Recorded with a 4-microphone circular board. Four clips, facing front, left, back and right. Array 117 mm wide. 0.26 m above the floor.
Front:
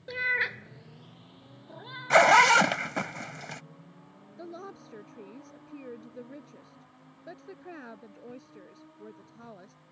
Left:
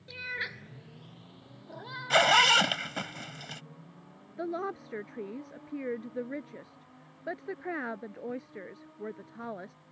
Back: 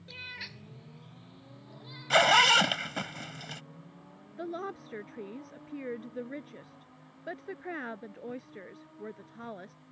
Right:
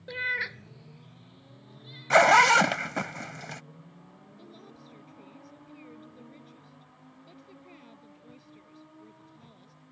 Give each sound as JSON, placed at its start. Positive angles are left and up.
{"t": 0.1, "sound": "a cat meowing", "azimuth_deg": -40}
{"t": 2.1, "sound": "a zipper", "azimuth_deg": -45}
{"t": 4.4, "sound": "a woman speaking", "azimuth_deg": 105}